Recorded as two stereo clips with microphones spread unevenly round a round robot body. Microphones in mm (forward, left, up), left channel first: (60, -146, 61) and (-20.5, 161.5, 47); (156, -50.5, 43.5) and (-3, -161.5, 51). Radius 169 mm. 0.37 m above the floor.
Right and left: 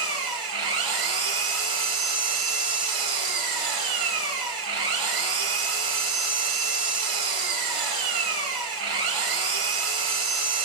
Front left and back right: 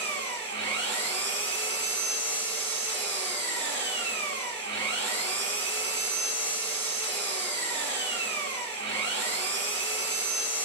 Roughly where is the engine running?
Behind left.